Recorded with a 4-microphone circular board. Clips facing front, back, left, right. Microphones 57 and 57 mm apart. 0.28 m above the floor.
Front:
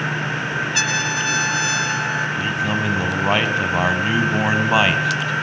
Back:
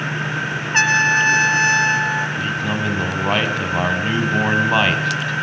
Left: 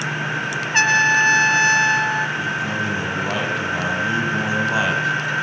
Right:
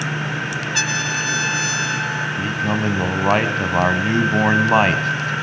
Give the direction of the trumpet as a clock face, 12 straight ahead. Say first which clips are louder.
Back 11 dB, left 10 dB; 8 o'clock.